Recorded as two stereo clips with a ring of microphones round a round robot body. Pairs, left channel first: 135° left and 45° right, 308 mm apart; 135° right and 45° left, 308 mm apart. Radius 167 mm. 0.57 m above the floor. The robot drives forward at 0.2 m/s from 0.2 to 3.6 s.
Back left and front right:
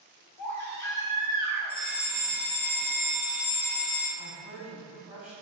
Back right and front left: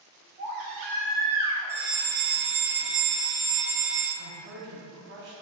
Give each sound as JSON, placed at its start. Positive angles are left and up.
{"t": 0.4, "sound": "a baby crying", "azimuth_deg": 50, "distance_m": 0.9}
{"t": 1.7, "sound": "a fire alarm", "azimuth_deg": 60, "distance_m": 1.7}
{"t": 4.2, "sound": "a woman speaking", "azimuth_deg": 40, "distance_m": 0.8}